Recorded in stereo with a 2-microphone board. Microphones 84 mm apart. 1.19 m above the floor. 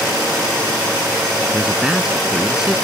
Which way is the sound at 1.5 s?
5° right (ahead or behind).